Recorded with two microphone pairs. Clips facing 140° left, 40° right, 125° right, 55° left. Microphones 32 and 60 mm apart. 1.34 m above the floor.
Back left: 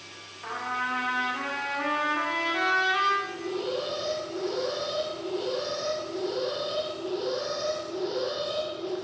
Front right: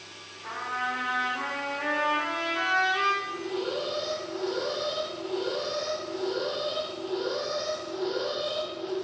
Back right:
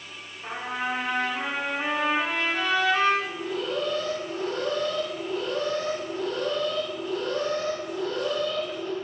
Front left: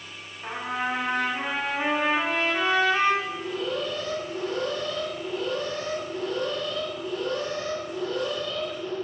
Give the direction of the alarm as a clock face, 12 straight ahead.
3 o'clock.